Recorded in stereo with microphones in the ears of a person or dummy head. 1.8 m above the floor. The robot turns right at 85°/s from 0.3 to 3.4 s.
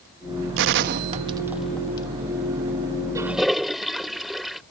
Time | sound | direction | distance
0.6 | a gunshot | 65° right (ahead or behind) | ?
3.1 | a toilet flushing | 20° right (ahead or behind) | ?